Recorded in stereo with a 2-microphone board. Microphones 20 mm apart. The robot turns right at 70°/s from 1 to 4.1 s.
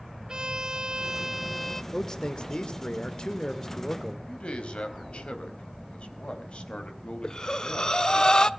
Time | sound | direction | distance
0.3 | a violin | 35° right | 1.0 m
1.9 | a man speaking | 35° left | 1.8 m
4.3 | a man speaking | 65° left (ahead or behind) | 4 m
7.2 | breathing | 40° left (ahead or behind) | 0.8 m